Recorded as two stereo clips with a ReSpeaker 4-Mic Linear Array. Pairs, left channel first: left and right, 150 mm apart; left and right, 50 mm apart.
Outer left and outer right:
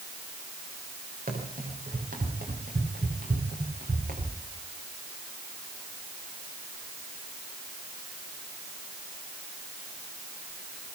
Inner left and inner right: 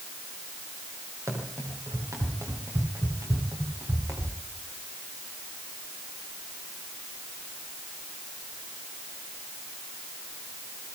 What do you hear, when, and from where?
1.3 s running footsteps: 75° right (ahead or behind), 9.5 m